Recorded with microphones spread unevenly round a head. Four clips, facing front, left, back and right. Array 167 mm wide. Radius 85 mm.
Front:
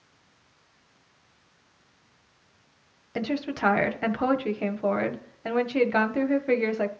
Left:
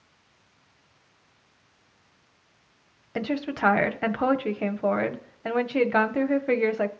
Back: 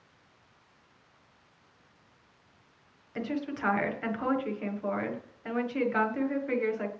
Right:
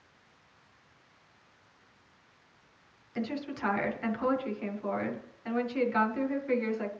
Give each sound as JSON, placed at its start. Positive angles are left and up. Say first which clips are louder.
{"t": 3.1, "sound": "a woman speaking", "louder": "left 7 dB, front 5 dB", "azimuth_deg": 55, "distance_m": 1.3}